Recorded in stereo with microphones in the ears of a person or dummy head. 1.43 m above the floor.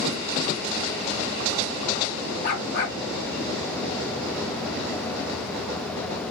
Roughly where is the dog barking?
Left.